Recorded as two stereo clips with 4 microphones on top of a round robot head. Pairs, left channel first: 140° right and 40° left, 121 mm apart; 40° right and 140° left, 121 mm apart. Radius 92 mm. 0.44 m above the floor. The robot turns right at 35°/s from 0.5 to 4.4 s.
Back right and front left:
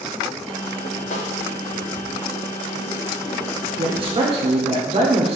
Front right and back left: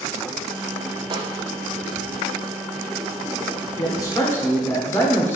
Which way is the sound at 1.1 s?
170° right.